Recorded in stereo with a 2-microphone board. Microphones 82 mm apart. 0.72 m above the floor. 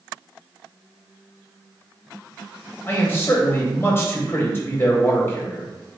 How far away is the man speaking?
About 0.7 m.